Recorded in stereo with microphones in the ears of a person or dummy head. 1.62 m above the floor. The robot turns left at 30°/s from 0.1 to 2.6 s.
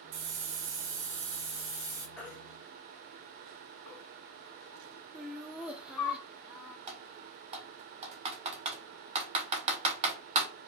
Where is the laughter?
5° right (ahead or behind), 0.6 m.